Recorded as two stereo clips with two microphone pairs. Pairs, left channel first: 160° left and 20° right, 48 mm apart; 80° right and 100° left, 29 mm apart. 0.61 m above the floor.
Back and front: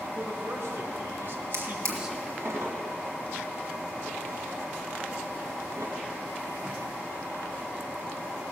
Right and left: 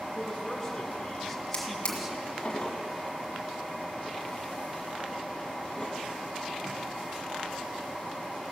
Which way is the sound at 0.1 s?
5° right.